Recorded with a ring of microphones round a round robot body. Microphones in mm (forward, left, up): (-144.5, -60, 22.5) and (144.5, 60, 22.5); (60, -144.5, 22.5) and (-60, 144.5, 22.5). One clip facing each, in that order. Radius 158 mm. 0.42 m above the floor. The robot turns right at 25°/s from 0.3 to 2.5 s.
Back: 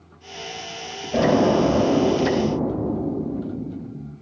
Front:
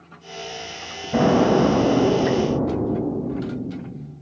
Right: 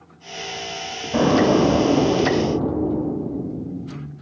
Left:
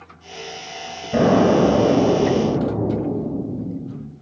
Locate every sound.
1.1 s an explosion: 80° left, 4.5 m; by 4.1 s 115° left, 4.5 m